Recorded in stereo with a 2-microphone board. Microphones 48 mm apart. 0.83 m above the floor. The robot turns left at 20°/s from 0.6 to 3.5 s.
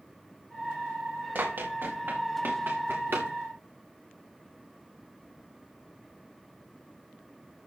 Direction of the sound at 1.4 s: 40° right (ahead or behind).